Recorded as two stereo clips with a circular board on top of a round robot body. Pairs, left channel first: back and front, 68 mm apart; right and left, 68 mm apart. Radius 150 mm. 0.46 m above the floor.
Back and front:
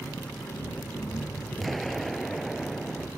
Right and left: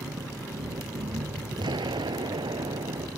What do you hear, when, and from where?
0.0 s an engine running: 110° left
1.6 s an explosion: 90° left